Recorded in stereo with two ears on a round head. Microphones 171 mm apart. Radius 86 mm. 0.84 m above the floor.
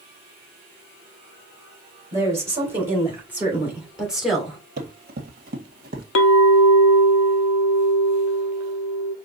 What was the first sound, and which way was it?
A woman speaking, 15° right (ahead or behind).